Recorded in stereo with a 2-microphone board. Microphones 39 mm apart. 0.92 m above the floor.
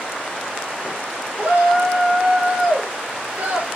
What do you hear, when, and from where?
1.4 s a shout: 35° right (ahead or behind), 1.9 m